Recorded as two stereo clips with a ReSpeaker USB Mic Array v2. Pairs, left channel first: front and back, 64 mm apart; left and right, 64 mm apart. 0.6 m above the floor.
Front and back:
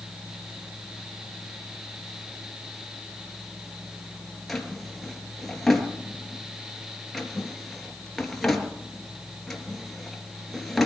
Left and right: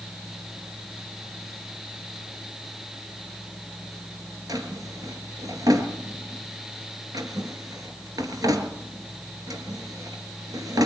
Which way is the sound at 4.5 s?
90° right.